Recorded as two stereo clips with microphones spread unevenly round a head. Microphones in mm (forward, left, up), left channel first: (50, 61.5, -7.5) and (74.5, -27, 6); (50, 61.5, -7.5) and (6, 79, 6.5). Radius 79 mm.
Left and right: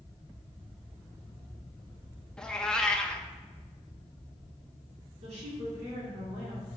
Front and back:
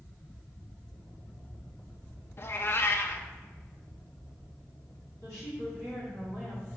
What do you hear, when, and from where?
2.4 s a cat meowing: 20° left, 0.9 m
5.2 s a woman speaking: 85° right, 3 m